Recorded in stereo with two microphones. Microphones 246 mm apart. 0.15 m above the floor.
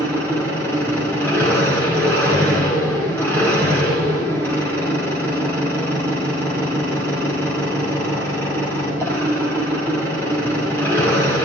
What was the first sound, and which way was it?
An engine running, 10° left (ahead or behind).